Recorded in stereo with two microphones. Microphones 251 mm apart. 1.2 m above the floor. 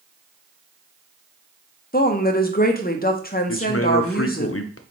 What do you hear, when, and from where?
1.9 s a woman speaking: 35° left (ahead or behind), 0.6 m
3.5 s a man speaking: 60° left (ahead or behind), 0.5 m